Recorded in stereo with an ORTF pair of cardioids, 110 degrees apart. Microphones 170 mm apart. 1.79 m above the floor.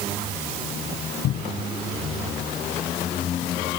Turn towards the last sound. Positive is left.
turn(degrees=70)